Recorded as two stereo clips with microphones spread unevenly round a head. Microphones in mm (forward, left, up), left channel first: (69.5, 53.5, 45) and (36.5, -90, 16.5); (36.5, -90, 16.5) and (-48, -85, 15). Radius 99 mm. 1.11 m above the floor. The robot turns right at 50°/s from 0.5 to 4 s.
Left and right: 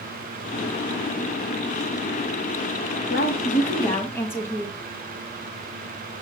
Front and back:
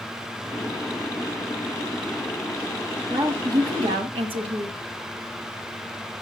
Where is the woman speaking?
110° left, 1.5 m; by 4.8 s 155° left, 1.5 m.